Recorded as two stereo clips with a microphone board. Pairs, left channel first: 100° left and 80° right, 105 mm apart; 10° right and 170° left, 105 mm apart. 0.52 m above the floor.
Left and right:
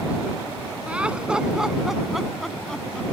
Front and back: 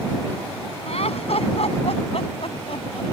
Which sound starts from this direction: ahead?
Laughter, at 0.9 s.